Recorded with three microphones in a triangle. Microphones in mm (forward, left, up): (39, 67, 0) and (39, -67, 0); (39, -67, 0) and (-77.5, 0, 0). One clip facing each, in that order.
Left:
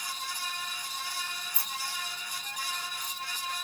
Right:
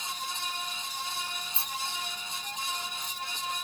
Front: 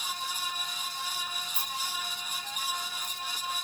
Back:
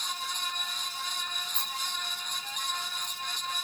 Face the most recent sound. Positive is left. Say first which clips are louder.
# right 2 dB, front 1 dB
turn(degrees=-95)